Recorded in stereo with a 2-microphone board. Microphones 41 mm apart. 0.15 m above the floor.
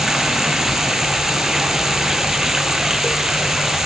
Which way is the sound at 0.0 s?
10° right (ahead or behind).